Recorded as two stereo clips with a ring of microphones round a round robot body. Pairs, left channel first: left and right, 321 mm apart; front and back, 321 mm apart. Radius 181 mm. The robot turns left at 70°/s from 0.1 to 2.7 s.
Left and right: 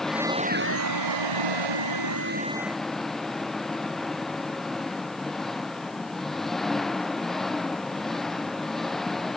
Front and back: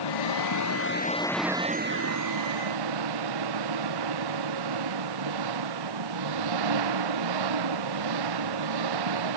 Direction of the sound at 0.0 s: Straight ahead.